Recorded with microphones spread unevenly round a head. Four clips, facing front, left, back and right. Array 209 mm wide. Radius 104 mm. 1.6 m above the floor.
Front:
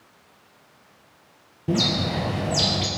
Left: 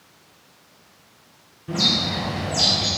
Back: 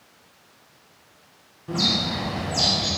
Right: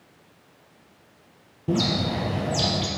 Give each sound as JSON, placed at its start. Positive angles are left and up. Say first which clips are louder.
{"t": 1.7, "sound": "a bird", "louder": "right 2 dB, front 3 dB", "azimuth_deg": -40, "distance_m": 1.4}